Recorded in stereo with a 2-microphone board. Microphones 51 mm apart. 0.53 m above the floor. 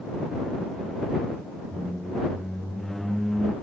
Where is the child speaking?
I don't hear a child speaking.